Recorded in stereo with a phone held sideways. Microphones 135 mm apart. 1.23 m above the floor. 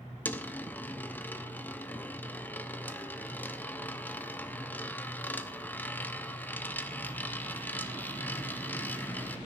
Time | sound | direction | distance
0.2 | a dropped coin | 15° left (ahead or behind) | 0.9 m